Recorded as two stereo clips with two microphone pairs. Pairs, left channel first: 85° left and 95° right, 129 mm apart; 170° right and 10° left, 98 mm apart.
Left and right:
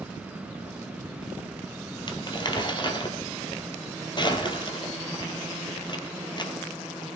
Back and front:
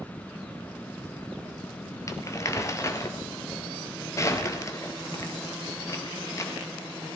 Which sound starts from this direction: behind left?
Crumpling, at 2.1 s.